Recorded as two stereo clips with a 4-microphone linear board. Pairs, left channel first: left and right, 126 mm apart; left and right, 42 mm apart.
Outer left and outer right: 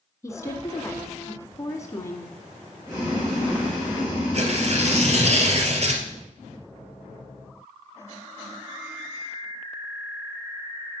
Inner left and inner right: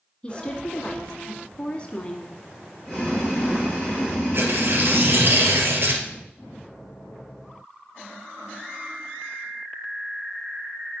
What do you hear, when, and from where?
0.2 s a woman speaking: 25° left (ahead or behind), 1.7 m
2.9 s boiling: 20° right (ahead or behind), 3.5 m
4.3 s tearing paper: 55° right (ahead or behind), 1.9 m